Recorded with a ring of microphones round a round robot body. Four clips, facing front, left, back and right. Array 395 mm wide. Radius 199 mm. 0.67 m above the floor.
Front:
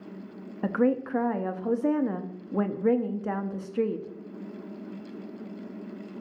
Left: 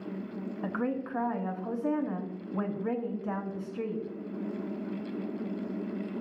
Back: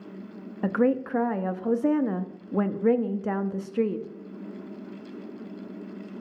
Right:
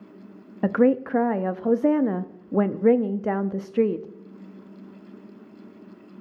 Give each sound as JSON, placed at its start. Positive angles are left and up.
{"t": 0.6, "sound": "a woman speaking", "azimuth_deg": -95, "distance_m": 0.7}